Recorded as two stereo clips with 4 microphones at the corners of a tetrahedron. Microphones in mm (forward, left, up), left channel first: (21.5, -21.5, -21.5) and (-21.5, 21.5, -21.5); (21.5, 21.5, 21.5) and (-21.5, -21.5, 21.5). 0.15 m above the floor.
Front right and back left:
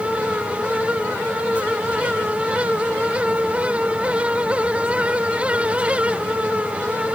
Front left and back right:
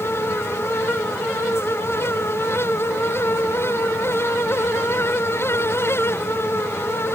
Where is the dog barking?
No dog barking in this recording.